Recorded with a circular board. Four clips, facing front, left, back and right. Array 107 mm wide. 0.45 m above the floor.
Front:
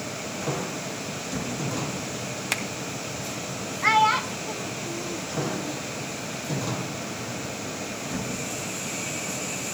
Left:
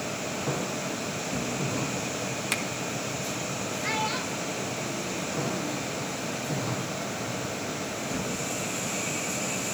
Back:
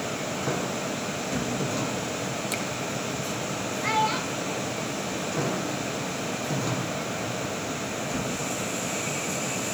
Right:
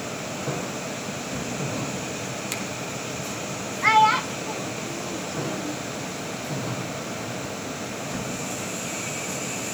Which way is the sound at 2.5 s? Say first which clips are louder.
Even, back 1 dB; 10° left.